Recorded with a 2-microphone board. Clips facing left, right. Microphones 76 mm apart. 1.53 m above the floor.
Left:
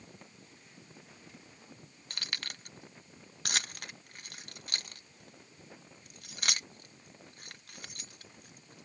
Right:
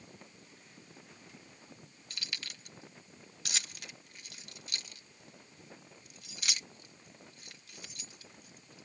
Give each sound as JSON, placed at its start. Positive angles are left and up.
{"t": 2.1, "sound": "keys jangling", "side_deg": 55}